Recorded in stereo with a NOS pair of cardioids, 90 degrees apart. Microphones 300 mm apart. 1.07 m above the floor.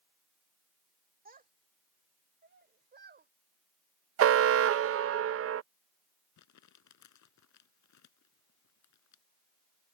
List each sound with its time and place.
1.2 s a child speaking: 30° right; by 3.3 s 35° right
4.2 s an alarm: 50° right
6.4 s crumpling: 65° left